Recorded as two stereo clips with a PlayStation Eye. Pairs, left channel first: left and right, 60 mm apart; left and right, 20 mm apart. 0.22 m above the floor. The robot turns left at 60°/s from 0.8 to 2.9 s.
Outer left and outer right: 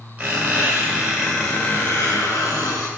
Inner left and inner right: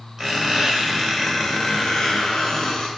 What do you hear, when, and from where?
0.2 s a squeak: 150° right, 1.4 m; by 2.9 s 85° left, 1.4 m